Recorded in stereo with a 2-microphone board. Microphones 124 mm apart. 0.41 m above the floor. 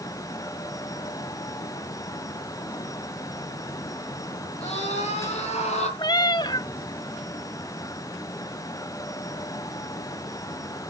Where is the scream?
50° left (ahead or behind), 6.5 m; by 5.9 s 65° left (ahead or behind), 7 m.